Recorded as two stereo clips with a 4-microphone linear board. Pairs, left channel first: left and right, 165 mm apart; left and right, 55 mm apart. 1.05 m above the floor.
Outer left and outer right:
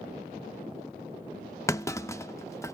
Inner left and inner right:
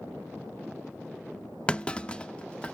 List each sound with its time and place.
1.7 s a clunk: 15° left (ahead or behind), 0.5 m